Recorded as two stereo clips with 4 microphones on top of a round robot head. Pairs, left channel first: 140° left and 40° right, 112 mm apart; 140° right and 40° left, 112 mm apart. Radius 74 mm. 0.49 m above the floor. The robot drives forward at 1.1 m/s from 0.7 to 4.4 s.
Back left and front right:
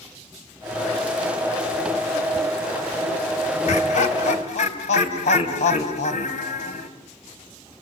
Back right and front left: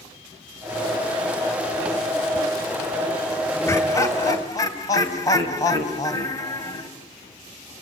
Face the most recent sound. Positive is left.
turn(degrees=160)